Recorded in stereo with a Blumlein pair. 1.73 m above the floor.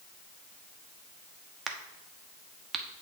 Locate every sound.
1.7 s a crack: 15° right, 1.1 m